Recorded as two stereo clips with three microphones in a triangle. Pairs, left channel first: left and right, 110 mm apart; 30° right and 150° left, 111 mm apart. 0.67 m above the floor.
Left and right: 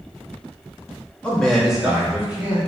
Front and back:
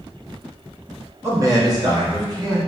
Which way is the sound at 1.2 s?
155° left.